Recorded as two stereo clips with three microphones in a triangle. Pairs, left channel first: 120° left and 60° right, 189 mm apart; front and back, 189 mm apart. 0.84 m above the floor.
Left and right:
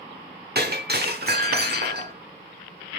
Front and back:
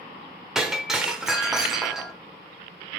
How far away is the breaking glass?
About 1.1 m.